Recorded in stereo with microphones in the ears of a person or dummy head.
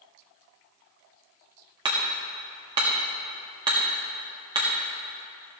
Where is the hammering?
30° right (ahead or behind), 1.5 m.